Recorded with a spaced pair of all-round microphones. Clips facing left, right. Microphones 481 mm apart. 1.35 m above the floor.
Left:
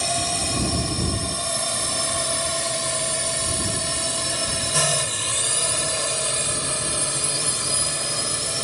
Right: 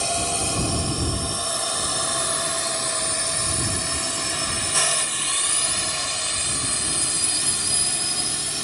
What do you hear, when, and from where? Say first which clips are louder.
0.0 s a drone: right 1 dB; 40° left (ahead or behind); by 8.6 s 80° left